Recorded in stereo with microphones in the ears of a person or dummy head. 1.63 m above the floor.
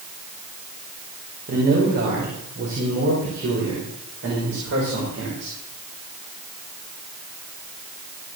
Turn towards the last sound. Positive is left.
turn(degrees=-70)  # may be behind; listen again after turning